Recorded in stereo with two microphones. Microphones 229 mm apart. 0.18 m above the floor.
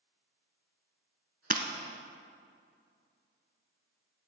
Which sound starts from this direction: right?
Breaking glass, at 1.5 s.